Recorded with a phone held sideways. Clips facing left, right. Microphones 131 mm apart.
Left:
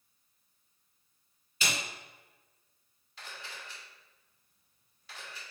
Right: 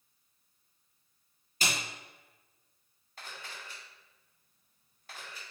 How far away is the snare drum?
About 2.5 m.